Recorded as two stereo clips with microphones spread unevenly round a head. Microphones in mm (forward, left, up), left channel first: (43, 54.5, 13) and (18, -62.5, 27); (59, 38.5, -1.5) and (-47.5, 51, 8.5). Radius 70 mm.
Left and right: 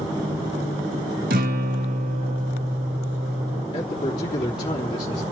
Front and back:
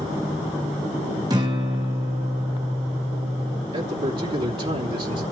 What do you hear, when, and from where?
1.3 s a guitar: 120° right, 2.5 m
3.7 s a man speaking: 140° left, 3 m